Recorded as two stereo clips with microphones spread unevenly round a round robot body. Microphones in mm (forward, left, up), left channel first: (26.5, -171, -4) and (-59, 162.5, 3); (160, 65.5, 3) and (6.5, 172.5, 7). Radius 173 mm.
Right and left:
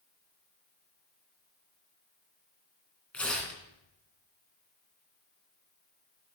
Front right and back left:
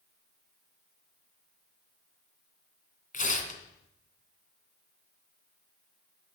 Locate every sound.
3.1 s tearing paper: 10° left, 2.5 m